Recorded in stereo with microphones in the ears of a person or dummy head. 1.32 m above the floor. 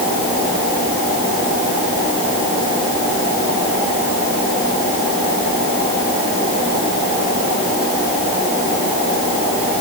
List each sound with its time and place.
Only background noise.